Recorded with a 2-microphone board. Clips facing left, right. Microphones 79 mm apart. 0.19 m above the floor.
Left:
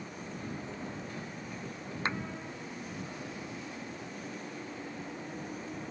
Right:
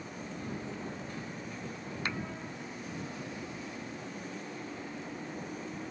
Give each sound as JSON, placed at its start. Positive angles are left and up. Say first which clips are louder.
{"t": 2.0, "sound": "a clap", "louder": "left 3 dB", "side_deg": 30}